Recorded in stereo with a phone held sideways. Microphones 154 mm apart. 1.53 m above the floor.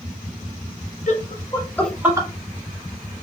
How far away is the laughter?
About 1.0 m.